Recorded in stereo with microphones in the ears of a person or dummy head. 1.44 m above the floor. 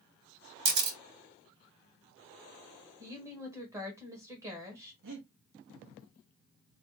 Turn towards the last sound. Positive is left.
turn(degrees=-70)  # may be behind; listen again after turning